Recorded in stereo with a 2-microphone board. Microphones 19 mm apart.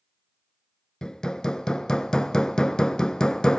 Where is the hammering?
50° left (ahead or behind), 0.6 m.